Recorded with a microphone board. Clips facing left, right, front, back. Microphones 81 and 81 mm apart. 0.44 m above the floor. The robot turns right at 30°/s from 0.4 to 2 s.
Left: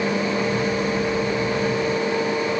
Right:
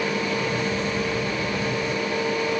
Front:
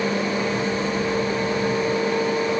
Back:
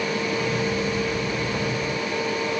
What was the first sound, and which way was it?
Only background noise.